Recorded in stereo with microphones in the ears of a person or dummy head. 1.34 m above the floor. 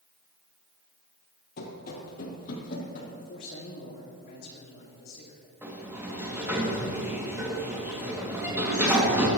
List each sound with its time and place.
1.6 s running footsteps: 50° left (ahead or behind), 2.5 m; by 3.1 s 40° left (ahead or behind), 4 m
3.2 s a man speaking: 50° left (ahead or behind), 2.5 m
5.6 s a sliding door: 10° right (ahead or behind), 2.5 m